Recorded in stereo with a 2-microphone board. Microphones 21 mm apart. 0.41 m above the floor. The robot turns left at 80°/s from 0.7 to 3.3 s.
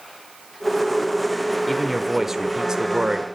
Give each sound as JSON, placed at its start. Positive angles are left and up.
{"t": 1.7, "sound": "a man speaking", "azimuth_deg": 15, "distance_m": 1.0}